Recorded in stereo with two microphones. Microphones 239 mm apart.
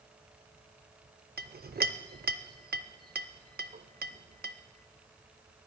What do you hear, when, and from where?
1.4 s a clink: 40° right (ahead or behind), 0.5 m